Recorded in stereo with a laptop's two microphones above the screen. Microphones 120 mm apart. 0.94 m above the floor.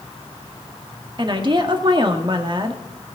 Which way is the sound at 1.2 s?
40° right (ahead or behind).